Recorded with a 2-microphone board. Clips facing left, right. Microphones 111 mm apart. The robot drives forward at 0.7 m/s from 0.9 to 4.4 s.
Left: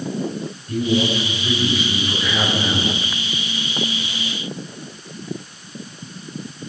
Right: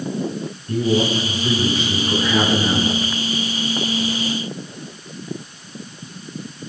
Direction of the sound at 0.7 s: 40° right (ahead or behind).